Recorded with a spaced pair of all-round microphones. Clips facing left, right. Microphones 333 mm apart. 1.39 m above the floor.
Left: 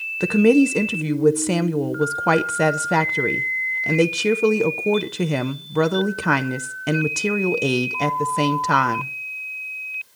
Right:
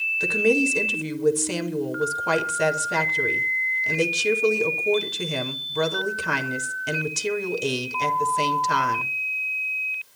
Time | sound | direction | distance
0.2 | a woman speaking | 70° left (ahead or behind) | 0.6 m